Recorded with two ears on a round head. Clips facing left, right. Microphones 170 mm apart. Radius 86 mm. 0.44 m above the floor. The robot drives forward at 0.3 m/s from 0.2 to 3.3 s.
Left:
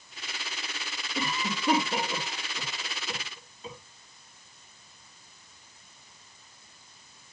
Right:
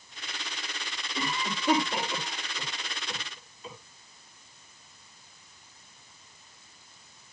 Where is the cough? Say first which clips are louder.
Left 1 dB; 20° left (ahead or behind), 5.5 m; by 3.8 s 25° left (ahead or behind), 4.5 m.